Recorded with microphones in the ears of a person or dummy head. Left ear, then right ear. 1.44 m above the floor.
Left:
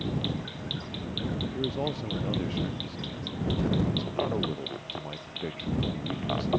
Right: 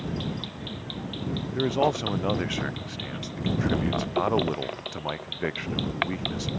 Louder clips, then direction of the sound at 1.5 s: Right 10 dB; 45° right (ahead or behind).